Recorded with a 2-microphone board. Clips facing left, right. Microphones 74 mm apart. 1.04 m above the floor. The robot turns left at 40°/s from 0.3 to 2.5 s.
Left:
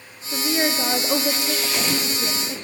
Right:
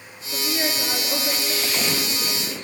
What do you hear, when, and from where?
0.3 s a woman speaking: 125° left, 1.8 m; by 2.6 s 40° left, 1.8 m